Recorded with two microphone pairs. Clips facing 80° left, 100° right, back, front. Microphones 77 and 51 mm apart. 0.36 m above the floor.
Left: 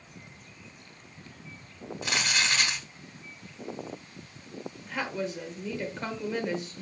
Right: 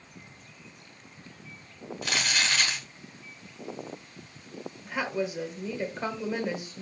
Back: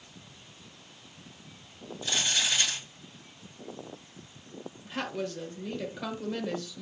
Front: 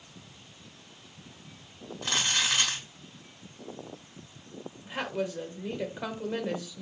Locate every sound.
2.0 s crumpling: 10° left, 3.5 m
4.8 s a woman speaking: 35° right, 1.3 m